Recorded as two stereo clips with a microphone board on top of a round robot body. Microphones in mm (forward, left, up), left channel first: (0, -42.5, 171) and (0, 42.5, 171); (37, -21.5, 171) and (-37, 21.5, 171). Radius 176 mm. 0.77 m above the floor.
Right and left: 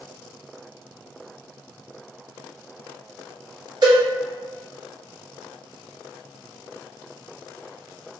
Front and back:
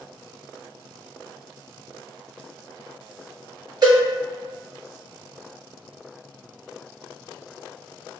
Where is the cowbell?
115° left, 1.5 m.